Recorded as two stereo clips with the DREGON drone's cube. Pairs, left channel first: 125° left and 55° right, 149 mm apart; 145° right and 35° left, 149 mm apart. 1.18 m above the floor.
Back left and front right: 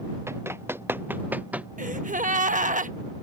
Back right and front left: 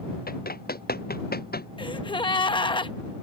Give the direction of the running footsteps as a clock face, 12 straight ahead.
4 o'clock.